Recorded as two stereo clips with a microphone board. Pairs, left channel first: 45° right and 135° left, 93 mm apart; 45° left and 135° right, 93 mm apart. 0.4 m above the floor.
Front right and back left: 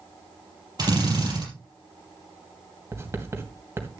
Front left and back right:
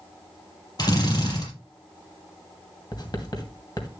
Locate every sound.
0.8 s a drill: 90° left, 5 m
2.9 s writing: 75° left, 2.5 m